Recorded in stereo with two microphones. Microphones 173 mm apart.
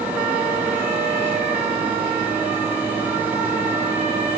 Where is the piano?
I don't hear a piano.